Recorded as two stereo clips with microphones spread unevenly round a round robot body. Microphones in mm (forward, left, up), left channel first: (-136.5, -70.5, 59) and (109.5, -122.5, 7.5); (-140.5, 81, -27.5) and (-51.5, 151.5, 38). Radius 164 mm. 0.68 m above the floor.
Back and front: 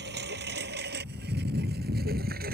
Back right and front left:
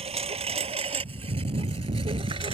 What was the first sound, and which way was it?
A lawn mower, 50° left.